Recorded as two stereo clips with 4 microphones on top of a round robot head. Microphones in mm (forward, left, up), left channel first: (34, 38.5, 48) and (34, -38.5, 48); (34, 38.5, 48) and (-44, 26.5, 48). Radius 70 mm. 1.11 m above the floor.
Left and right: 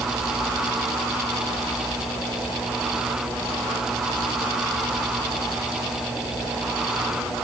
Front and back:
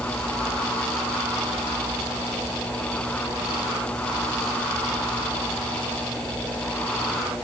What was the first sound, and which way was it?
Only background noise.